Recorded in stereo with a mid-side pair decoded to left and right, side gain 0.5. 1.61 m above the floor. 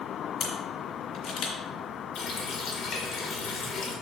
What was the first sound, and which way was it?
A camera shutter, 65° left.